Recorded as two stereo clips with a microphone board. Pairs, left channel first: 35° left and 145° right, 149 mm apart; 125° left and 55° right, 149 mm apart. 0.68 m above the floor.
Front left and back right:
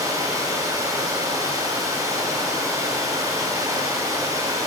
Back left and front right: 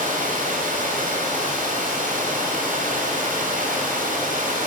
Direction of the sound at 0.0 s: 75° right.